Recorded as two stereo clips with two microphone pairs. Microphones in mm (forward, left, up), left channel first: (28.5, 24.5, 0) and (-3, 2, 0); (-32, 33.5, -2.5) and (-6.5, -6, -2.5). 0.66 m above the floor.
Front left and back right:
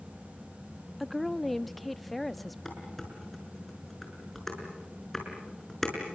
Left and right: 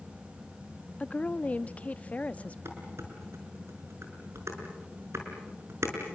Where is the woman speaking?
120° left, 0.8 m.